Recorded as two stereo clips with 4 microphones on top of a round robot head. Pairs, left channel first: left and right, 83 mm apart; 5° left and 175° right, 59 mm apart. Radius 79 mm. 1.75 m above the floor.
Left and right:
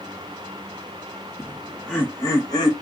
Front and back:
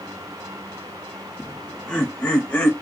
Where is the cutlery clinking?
I don't hear cutlery clinking.